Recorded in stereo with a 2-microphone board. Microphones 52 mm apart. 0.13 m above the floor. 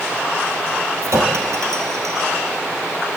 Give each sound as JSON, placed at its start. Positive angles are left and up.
{"t": 1.0, "sound": "a clink", "side_deg": -70, "distance_m": 2.5}